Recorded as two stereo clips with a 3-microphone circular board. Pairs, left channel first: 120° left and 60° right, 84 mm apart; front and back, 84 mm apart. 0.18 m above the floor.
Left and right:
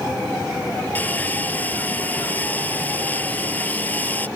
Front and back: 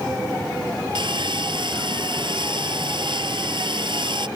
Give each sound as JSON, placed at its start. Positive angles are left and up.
{"t": 0.9, "sound": "sawing", "azimuth_deg": -170}